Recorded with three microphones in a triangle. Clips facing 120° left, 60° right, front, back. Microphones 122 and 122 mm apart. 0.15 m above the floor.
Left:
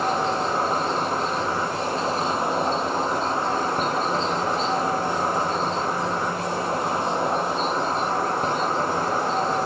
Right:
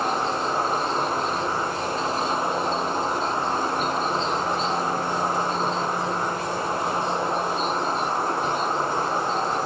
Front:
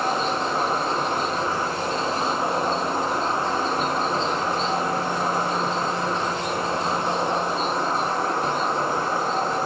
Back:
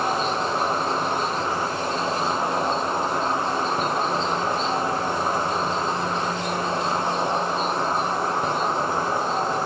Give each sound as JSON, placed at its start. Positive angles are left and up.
{"t": 0.0, "sound": "an insect", "azimuth_deg": 110, "distance_m": 6.0}